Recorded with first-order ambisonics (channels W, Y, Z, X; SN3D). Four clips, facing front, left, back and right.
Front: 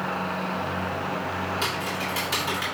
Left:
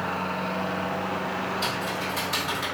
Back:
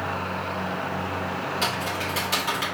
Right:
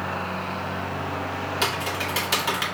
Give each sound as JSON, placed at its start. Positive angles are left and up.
{"t": 1.6, "sound": "typing on a keyboard", "azimuth_deg": -90, "distance_m": 1.9}